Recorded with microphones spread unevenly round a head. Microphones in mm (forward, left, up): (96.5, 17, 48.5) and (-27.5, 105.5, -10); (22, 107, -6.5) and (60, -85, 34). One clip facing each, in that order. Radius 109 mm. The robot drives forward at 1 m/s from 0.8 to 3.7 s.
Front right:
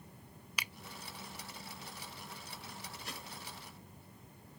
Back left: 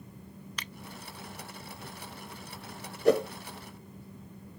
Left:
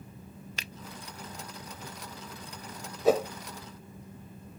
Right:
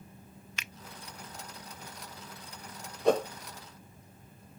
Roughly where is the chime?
I don't hear a chime.